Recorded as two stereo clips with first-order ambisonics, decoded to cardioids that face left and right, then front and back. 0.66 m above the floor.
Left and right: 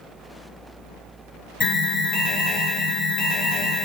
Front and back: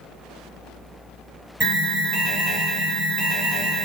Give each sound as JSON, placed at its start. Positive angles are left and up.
{"t": 1.6, "sound": "an alarm", "azimuth_deg": 135, "distance_m": 1.3}